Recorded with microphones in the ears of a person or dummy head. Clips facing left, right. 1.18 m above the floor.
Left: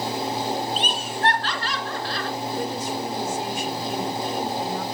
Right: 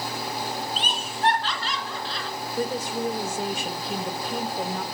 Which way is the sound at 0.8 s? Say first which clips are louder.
Left 3 dB; 50° left (ahead or behind).